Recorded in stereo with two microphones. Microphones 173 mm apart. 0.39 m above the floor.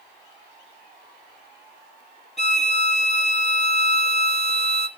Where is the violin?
40° left (ahead or behind), 0.8 m.